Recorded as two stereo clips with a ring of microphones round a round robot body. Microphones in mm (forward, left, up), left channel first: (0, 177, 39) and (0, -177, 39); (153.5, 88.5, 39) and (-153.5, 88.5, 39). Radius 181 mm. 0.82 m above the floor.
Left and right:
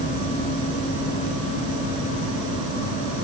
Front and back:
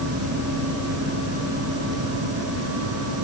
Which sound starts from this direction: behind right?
An insect, at 0.0 s.